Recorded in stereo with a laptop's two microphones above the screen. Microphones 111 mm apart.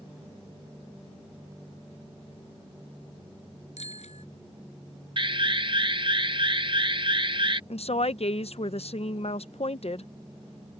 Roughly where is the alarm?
Right.